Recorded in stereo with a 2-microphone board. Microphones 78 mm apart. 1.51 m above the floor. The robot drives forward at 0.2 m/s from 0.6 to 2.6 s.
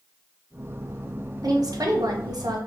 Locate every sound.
1.4 s a woman speaking: 50° right (ahead or behind), 0.6 m; by 2.6 s 60° right (ahead or behind), 0.6 m